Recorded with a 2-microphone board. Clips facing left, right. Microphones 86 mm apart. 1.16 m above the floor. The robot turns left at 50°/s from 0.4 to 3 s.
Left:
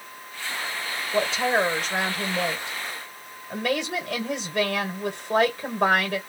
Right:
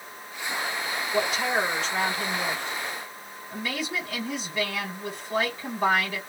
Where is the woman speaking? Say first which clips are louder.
Left 3 dB; 160° left, 1.6 m; by 6.2 s 65° left, 1.6 m.